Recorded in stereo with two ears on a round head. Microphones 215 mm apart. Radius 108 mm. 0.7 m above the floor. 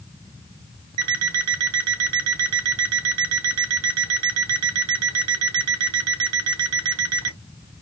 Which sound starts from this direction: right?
An alarm clock, at 1.0 s.